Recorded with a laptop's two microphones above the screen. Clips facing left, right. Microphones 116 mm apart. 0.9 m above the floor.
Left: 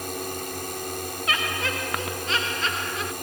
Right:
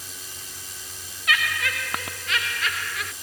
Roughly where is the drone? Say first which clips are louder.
Left 14 dB; left.